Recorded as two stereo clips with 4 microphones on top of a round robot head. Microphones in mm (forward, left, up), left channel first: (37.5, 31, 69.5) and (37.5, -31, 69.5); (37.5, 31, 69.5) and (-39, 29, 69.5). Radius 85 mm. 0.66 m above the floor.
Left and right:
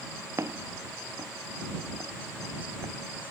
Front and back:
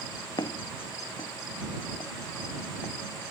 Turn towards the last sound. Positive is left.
turn(degrees=-65)